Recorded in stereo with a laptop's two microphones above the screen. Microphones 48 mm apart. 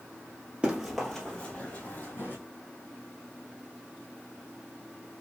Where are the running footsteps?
20° right (ahead or behind), 1.1 m; by 2.4 s 45° left (ahead or behind), 2.0 m.